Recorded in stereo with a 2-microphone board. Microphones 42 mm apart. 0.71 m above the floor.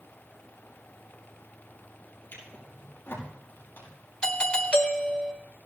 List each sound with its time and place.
2.3 s a drawer: 50° left (ahead or behind), 5 m
4.2 s a doorbell: 25° left (ahead or behind), 1.0 m